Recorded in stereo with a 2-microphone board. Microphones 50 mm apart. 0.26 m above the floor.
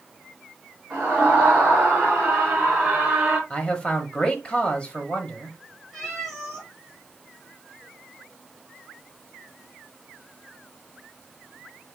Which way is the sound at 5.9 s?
Centre (ahead or behind).